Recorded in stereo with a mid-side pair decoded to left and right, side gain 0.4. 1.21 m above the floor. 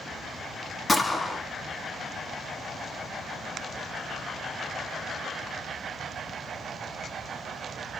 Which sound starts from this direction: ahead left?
A gunshot, at 0.9 s.